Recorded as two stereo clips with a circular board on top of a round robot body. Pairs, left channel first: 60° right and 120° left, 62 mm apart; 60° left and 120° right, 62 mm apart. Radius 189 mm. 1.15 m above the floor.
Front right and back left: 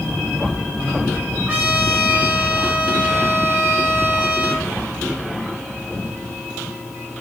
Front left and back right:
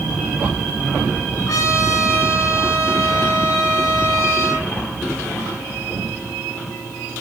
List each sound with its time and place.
1.5 s a trumpet: 65° left, 4 m